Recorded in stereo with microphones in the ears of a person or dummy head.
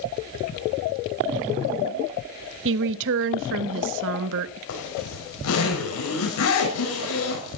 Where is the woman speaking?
60° right (ahead or behind), 1.0 m.